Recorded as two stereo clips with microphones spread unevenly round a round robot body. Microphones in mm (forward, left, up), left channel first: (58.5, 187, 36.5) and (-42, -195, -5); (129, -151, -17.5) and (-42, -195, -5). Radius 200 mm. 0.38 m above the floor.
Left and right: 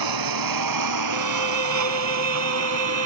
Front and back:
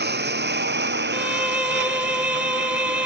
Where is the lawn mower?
145° right; by 3.1 s 160° right.